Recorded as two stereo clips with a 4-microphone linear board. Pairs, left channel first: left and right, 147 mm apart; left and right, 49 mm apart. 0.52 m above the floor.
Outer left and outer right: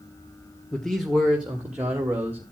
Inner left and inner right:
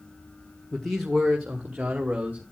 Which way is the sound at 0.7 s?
5° left (ahead or behind).